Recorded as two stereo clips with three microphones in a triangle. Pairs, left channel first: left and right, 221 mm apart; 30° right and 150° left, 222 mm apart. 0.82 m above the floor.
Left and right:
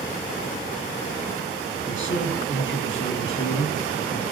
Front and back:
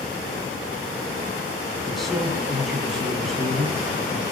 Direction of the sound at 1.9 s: 60° left.